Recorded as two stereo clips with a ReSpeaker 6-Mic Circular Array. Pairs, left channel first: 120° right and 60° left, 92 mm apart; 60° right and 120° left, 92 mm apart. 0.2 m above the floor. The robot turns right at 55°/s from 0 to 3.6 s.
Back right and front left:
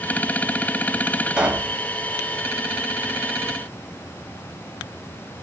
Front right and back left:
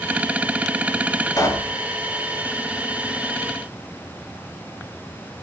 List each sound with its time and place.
1.4 s a pop: 15° right, 0.8 m; by 1.8 s 5° left, 0.8 m